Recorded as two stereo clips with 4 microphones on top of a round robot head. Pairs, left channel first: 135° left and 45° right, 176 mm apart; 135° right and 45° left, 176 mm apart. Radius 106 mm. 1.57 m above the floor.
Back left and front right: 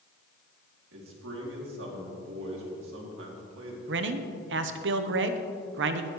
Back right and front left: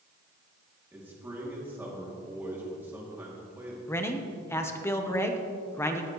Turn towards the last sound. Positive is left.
turn(degrees=-60)